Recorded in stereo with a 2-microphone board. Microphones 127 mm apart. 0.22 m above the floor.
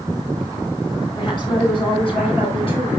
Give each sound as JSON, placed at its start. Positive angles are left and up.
{"t": 1.2, "sound": "a woman speaking", "side_deg": 35, "distance_m": 5.0}